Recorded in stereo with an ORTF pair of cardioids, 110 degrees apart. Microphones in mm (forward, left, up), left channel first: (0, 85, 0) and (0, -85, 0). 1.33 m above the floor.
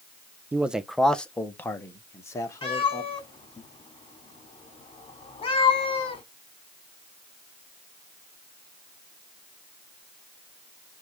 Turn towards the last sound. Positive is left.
turn(degrees=30)